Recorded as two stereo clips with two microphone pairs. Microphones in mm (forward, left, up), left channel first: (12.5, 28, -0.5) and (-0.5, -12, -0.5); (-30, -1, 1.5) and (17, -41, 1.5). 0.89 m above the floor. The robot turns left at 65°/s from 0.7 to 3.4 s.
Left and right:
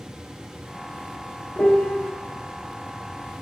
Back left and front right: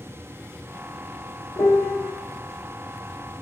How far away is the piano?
About 0.6 m.